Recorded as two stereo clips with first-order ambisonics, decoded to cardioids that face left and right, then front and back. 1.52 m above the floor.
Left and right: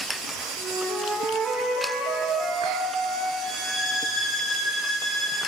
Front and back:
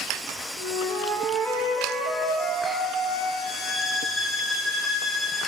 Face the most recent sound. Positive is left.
turn(degrees=65)